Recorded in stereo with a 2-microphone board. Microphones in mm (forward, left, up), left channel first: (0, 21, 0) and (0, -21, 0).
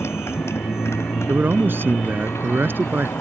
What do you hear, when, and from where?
0.0 s a motorcycle: 80° left; by 3.2 s 85° left
1.3 s a man speaking: 55° right (ahead or behind)